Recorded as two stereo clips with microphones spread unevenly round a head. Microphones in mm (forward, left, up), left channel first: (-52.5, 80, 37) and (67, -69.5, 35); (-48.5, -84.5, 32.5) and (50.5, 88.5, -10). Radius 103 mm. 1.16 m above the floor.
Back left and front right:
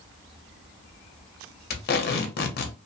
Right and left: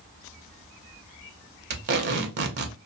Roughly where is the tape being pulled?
Left.